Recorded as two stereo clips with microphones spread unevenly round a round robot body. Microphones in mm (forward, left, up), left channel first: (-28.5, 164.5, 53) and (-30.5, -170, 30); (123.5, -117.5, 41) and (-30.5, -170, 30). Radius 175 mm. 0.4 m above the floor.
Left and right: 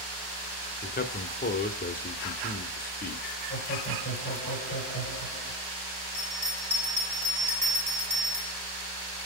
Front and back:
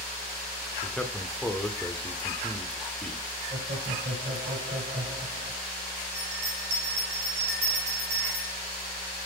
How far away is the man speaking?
About 1.0 m.